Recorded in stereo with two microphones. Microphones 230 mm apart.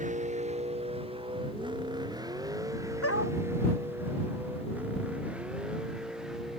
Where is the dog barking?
75° left (ahead or behind).